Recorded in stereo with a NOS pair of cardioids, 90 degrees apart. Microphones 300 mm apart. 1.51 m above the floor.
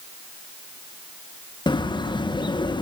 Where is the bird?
15° left, 2.0 m.